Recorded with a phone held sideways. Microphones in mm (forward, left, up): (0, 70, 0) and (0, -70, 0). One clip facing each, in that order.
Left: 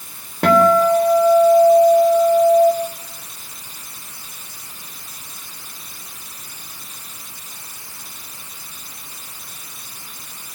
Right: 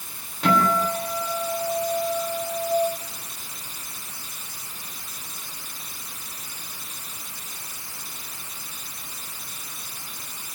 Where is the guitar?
70° left (ahead or behind), 4 m.